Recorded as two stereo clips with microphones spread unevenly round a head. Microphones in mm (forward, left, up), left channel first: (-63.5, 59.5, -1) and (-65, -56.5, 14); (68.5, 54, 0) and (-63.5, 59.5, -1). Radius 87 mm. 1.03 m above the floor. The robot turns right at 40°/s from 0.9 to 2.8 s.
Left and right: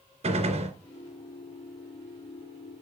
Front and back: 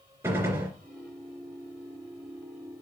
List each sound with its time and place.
0.2 s a gunshot: 105° right, 2.5 m